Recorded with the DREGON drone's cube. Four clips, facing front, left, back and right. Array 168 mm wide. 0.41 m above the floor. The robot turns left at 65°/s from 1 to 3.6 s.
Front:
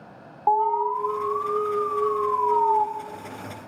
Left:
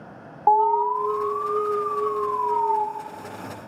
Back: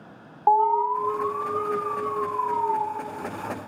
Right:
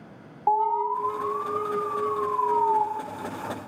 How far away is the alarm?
About 1.2 m.